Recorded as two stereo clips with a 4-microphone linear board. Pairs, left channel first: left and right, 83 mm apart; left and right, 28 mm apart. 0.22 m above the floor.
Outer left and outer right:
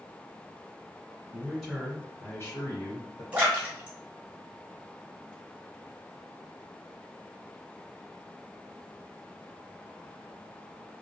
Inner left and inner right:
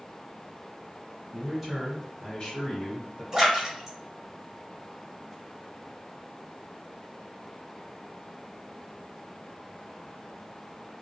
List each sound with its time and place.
1.3 s a man speaking: 20° right (ahead or behind), 1.6 m; by 3.2 s 60° left (ahead or behind), 1.9 m
3.3 s a splash: 15° right (ahead or behind), 1.9 m